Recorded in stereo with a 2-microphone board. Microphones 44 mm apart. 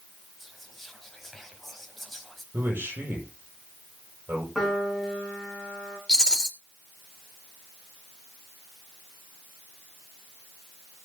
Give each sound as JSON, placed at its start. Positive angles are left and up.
{"t": 0.4, "sound": "whispering", "side_deg": 5, "distance_m": 1.6}
{"t": 2.5, "sound": "a man speaking", "side_deg": -55, "distance_m": 7.0}
{"t": 4.5, "sound": "a piano", "side_deg": 5, "distance_m": 5.0}
{"t": 6.1, "sound": "a rattle", "side_deg": 20, "distance_m": 3.0}